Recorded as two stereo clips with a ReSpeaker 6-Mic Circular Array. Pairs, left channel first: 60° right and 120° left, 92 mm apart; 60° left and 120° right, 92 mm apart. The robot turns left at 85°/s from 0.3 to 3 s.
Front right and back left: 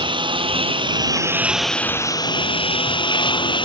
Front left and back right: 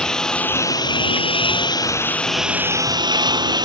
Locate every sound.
0.0 s a lawn mower: 140° left; by 3.6 s 85° right